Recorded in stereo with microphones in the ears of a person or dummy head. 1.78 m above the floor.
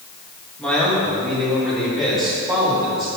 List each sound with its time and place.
0.6 s a man speaking: 5° left (ahead or behind), 3 m; by 3.1 s 5° right (ahead or behind), 4.5 m